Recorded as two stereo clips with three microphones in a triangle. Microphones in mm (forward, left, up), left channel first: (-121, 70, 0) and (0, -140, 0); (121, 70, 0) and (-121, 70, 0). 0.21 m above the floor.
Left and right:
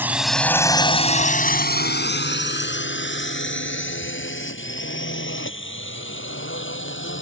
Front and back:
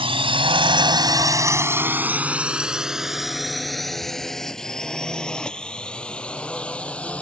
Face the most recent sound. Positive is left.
turn(degrees=85)